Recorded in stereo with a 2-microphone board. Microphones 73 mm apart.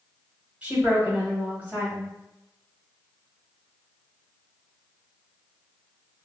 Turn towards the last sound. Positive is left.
turn(degrees=-20)  # may be behind; listen again after turning